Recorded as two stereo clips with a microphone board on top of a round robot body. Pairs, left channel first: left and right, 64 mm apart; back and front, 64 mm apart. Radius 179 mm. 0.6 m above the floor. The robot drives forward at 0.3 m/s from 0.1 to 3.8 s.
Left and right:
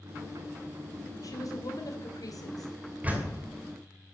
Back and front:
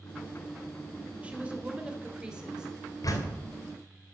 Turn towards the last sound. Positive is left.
turn(degrees=-160)